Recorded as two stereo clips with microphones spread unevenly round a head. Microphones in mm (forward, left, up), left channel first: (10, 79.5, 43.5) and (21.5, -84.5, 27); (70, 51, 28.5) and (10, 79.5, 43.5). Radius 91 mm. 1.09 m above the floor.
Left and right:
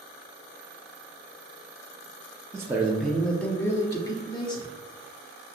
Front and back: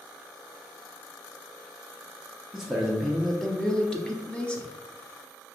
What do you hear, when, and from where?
2.5 s a man speaking: 100° right, 0.7 m; by 4.7 s 35° left, 1.1 m